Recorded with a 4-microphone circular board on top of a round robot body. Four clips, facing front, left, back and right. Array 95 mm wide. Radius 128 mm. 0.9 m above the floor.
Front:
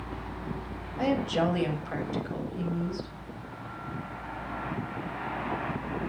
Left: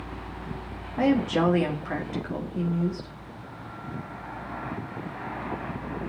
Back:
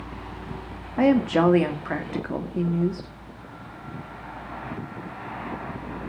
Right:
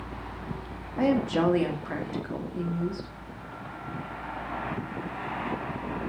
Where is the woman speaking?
175° left, 1.9 m.